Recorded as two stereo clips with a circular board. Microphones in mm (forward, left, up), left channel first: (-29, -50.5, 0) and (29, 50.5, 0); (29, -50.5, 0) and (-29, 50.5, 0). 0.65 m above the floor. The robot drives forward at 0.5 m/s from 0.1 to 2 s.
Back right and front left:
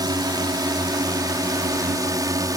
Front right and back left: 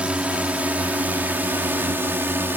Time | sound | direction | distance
0.0 | a drone | 45° left | ?